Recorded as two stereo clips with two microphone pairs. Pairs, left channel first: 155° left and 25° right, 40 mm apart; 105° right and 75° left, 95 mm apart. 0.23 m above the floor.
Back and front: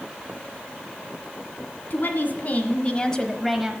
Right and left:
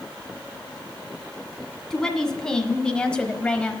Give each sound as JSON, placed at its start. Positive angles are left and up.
{"t": 1.9, "sound": "a woman speaking", "azimuth_deg": 175, "distance_m": 1.8}